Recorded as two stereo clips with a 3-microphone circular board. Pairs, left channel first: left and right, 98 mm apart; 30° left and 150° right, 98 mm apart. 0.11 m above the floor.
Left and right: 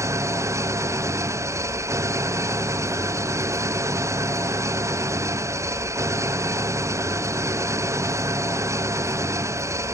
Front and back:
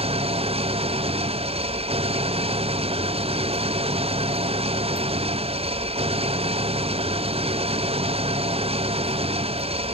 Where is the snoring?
No snoring in this recording.